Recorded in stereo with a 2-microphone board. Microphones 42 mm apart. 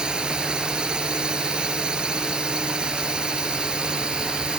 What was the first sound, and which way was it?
A drone, 20° right (ahead or behind).